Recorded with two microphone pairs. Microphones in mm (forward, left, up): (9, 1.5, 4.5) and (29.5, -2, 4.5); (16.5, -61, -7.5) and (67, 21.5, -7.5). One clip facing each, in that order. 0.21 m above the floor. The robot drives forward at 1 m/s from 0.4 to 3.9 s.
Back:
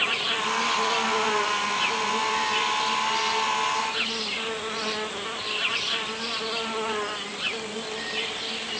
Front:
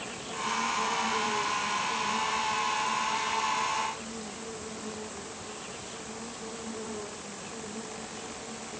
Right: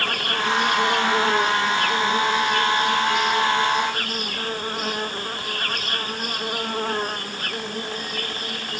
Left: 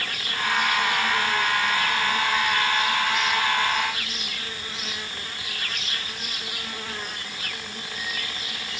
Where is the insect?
160° right; by 8.8 s 165° right.